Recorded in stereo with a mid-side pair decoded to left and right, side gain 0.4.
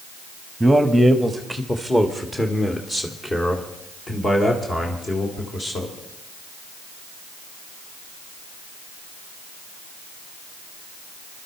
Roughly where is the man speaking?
Ahead.